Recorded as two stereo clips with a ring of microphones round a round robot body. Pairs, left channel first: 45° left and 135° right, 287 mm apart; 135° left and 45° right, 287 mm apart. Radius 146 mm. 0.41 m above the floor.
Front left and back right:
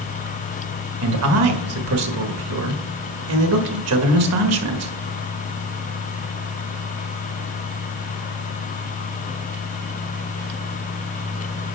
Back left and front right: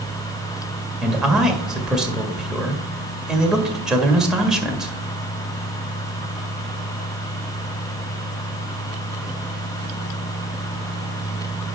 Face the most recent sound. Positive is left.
turn(degrees=-130)